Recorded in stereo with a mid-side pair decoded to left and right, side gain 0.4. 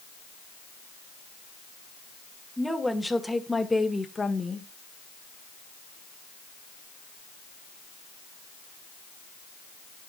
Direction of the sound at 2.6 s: 5° right.